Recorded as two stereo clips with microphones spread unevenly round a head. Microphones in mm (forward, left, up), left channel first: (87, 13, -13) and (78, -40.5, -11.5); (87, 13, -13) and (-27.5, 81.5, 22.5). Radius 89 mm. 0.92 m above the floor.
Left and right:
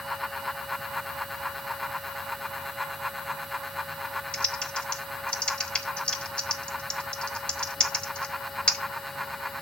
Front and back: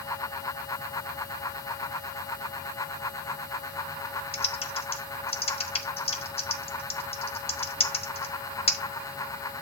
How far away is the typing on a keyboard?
About 1.4 m.